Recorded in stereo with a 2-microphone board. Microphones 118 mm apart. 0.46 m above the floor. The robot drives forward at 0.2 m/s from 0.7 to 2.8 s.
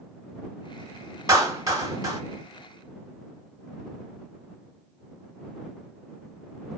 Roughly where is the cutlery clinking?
I don't hear cutlery clinking.